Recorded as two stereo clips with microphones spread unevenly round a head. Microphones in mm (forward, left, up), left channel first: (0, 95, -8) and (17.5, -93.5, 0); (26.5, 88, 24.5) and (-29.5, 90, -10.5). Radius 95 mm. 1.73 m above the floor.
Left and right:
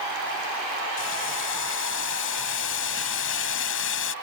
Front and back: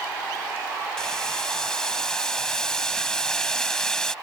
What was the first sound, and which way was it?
Boiling, 70° left.